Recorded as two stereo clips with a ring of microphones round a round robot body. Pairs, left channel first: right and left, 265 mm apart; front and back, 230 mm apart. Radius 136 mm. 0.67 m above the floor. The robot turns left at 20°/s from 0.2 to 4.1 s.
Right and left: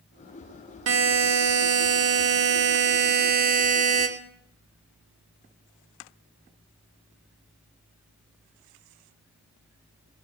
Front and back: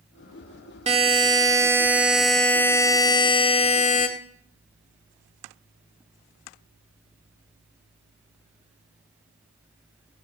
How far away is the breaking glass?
No breaking glass in this recording.